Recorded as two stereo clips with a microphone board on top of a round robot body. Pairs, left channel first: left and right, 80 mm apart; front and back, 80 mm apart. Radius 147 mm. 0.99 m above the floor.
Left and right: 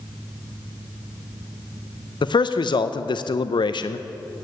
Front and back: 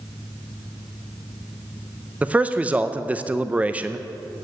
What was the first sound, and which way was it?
A man speaking, 110° left.